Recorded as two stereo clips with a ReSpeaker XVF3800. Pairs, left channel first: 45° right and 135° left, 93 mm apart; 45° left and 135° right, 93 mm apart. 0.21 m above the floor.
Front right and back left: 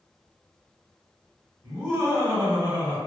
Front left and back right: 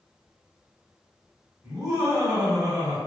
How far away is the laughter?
About 1.1 m.